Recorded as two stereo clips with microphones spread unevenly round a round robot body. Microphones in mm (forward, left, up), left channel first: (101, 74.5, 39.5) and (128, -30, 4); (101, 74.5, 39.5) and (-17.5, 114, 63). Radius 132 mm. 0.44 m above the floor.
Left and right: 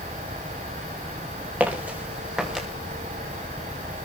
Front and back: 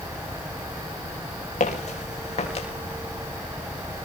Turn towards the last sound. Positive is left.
turn(degrees=15)